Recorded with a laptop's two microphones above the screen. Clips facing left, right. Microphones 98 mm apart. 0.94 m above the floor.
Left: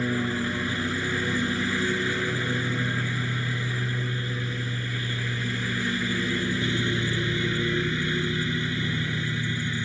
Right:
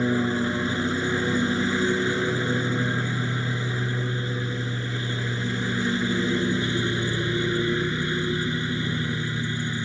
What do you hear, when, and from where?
0.0 s a lawn mower: 20° right (ahead or behind)